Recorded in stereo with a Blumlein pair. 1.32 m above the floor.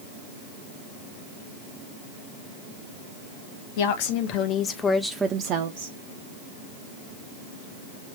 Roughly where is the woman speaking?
Ahead left.